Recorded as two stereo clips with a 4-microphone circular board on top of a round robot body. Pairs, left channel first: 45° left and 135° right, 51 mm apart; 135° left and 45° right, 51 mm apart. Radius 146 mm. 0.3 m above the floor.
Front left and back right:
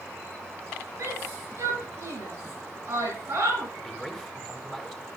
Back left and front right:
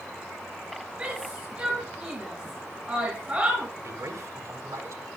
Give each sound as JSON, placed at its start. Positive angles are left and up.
{"t": 1.0, "sound": "a shout", "azimuth_deg": -110, "distance_m": 8.5}
{"t": 3.8, "sound": "a man speaking", "azimuth_deg": -50, "distance_m": 5.0}